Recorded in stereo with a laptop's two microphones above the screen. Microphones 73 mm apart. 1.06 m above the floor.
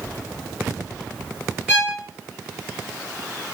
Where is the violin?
15° right (ahead or behind), 1.5 m.